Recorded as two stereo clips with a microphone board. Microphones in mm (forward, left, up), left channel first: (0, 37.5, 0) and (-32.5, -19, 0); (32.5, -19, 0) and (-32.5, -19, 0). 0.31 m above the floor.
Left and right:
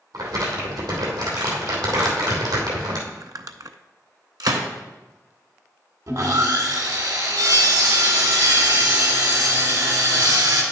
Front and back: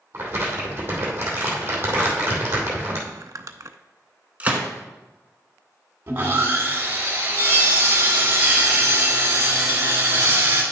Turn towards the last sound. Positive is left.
turn(degrees=-125)